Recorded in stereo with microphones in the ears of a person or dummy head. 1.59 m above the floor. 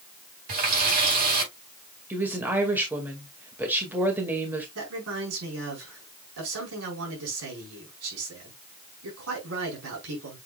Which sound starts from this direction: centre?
A woman speaking, at 2.1 s.